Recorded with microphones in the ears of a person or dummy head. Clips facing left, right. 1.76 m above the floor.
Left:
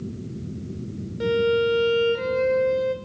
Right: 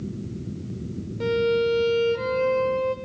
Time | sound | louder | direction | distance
1.2 | a violin | left 1 dB | 15° left (ahead or behind) | 1.8 m